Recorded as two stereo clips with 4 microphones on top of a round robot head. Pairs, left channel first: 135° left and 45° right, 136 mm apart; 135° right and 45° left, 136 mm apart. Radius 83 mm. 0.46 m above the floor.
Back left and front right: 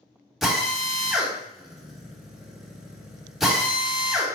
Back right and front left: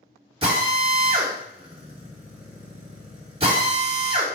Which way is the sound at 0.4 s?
45° left.